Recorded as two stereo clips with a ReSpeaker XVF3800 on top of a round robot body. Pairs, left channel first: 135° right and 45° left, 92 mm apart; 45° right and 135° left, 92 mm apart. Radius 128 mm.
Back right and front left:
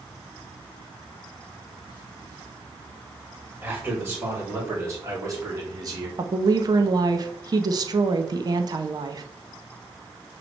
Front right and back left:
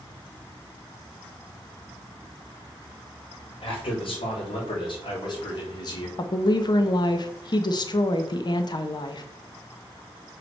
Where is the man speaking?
20° right, 4.5 m; by 6.1 s straight ahead, 3 m.